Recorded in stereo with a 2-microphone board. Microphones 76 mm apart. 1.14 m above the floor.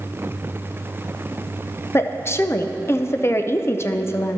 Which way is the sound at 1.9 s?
35° left (ahead or behind).